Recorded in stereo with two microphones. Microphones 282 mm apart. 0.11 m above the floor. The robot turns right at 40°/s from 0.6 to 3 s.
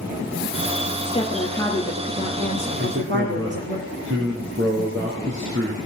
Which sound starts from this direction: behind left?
A woman speaking, at 1.1 s.